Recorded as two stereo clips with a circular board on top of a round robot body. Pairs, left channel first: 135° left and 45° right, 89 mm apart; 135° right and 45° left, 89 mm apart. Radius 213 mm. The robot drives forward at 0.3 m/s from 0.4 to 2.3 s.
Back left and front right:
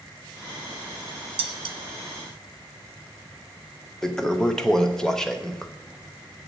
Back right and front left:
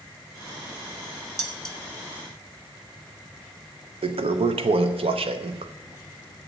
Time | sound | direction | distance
1.4 | dishes clattering | 45° right | 1.0 m
4.0 | a toilet flushing | 50° left | 0.6 m